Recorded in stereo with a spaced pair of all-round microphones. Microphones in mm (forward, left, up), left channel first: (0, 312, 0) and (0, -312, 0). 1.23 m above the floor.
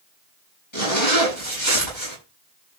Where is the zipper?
45° left (ahead or behind), 8.5 m.